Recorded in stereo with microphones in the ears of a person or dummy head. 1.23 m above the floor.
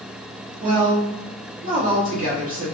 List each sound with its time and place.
0.6 s a woman speaking: 40° right (ahead or behind), 1.3 m